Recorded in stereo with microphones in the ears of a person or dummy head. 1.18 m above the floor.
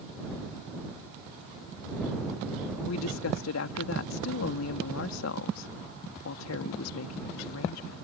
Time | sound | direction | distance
2.8 | a woman speaking | 85° left | ?